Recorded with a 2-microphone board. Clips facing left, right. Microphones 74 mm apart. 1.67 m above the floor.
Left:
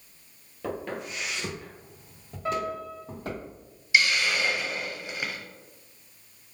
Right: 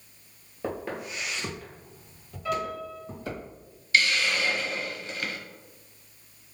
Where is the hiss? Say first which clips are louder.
Left 1 dB; 15° left (ahead or behind), 0.8 m.